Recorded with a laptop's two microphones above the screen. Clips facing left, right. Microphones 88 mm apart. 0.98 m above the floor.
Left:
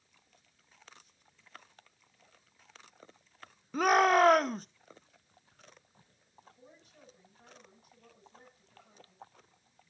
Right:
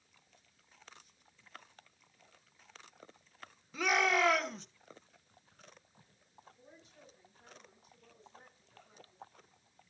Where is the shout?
45° left (ahead or behind), 0.9 m.